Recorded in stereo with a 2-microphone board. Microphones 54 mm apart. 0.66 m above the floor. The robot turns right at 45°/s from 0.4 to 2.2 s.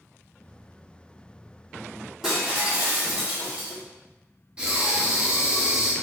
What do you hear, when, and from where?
2.2 s breaking glass: 10° right (ahead or behind), 1.8 m
4.6 s breathing: 20° right (ahead or behind), 0.9 m